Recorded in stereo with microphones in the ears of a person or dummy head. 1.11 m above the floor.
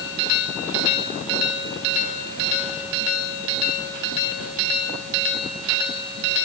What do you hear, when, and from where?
Only background noise.